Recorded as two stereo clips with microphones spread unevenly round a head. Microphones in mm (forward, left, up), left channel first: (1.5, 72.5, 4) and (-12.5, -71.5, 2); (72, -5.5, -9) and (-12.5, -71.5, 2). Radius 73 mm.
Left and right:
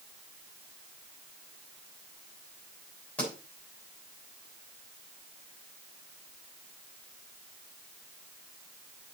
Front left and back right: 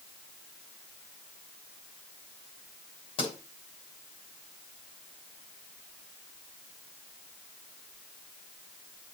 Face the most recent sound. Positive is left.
turn(degrees=5)